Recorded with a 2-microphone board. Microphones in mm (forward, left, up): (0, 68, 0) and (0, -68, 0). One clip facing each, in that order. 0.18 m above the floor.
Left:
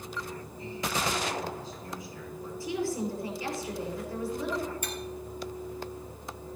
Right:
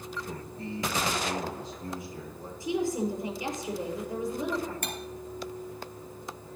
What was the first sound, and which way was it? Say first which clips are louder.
A man speaking: right 2 dB; 60° right (ahead or behind).